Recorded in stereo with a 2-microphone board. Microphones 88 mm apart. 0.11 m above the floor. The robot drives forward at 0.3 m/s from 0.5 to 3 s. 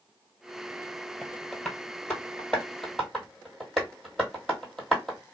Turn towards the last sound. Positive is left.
turn(degrees=0)  # may be behind; listen again after turning